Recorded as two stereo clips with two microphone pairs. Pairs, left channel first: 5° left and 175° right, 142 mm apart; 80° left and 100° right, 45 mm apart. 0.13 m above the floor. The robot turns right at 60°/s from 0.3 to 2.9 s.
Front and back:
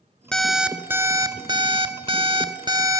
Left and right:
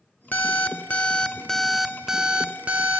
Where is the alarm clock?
85° left, 0.5 m; by 3.0 s 120° right, 0.5 m.